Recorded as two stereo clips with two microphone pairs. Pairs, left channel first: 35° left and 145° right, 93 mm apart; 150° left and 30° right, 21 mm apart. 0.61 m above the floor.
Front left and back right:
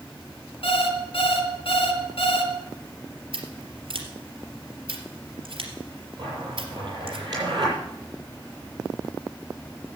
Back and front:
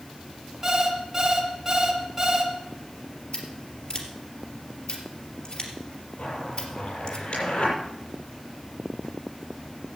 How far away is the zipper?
About 7.5 m.